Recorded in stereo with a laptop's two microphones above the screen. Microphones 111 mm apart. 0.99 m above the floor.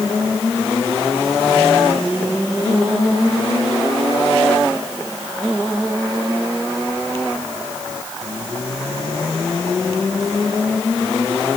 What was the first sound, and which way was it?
Only background noise.